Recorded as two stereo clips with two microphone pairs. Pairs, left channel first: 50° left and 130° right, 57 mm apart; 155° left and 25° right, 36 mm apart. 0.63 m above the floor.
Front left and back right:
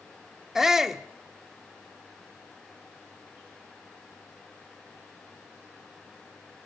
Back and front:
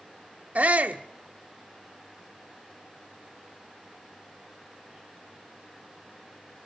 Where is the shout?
50° right, 1.1 m.